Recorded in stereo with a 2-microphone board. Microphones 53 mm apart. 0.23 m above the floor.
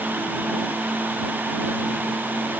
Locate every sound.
Only background noise.